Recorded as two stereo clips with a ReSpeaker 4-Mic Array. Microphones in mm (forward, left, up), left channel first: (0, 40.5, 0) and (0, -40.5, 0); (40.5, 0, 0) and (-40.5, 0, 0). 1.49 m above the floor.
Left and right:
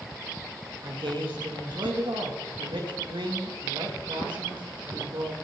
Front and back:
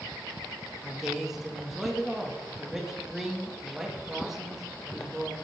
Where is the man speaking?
95° right, 2.5 m.